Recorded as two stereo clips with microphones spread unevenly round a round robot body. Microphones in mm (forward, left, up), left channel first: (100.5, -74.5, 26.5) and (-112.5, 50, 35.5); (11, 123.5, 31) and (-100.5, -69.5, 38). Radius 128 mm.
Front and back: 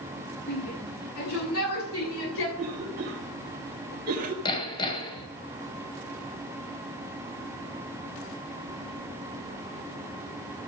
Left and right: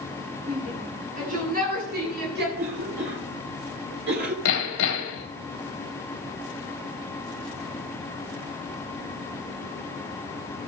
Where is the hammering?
45° left, 1.9 m.